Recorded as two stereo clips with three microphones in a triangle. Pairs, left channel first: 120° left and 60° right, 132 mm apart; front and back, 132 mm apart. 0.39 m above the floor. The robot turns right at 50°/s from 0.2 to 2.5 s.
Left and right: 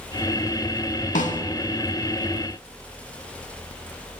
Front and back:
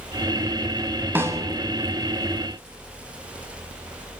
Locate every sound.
1.1 s a snare drum: 105° left, 0.6 m; by 1.4 s 115° left, 0.6 m